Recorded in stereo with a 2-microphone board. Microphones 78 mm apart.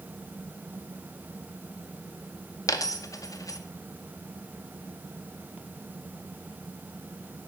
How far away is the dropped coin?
About 0.6 m.